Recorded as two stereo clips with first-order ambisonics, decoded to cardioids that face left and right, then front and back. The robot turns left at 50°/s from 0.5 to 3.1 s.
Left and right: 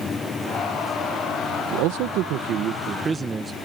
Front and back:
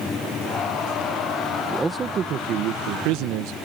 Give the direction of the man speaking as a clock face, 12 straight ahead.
3 o'clock.